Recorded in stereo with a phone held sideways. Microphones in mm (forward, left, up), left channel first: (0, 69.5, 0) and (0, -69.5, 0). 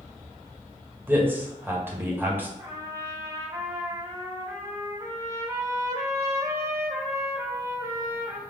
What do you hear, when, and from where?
1.1 s a man speaking: 15° right (ahead or behind), 1.8 m
2.6 s a trumpet: 25° right (ahead or behind), 1.7 m